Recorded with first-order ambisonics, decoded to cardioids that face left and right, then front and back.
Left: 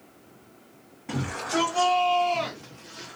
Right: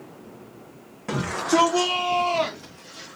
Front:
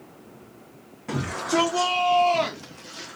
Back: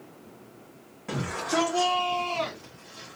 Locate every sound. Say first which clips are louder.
1.1 s a shout: right 6 dB, front 3 dB; 90° right, 1.0 m; by 3.2 s 15° left, 0.8 m